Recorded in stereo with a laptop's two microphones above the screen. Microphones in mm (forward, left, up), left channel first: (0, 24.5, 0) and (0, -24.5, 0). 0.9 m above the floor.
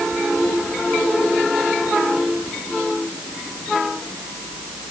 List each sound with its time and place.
Only background noise.